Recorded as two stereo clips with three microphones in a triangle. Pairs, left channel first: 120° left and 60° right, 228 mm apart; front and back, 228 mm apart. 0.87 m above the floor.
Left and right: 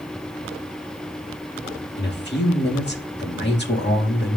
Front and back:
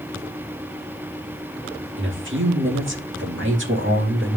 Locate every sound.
2.0 s a man speaking: 155° left, 2 m